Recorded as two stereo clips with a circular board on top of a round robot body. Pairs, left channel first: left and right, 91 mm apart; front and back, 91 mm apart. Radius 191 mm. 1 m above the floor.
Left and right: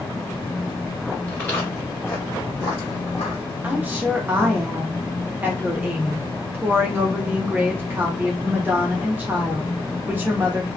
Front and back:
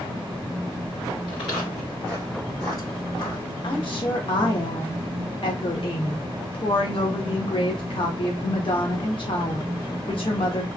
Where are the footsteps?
20° left, 1.3 m; by 3.5 s 65° left, 1.8 m.